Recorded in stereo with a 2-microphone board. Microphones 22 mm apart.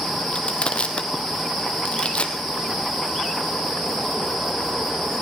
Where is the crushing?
55° left (ahead or behind), 1.4 m.